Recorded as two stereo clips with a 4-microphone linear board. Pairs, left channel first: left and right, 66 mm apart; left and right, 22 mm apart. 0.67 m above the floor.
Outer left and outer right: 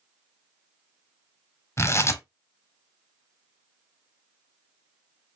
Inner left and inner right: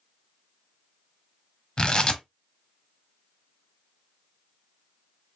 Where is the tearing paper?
40° left (ahead or behind), 0.8 m.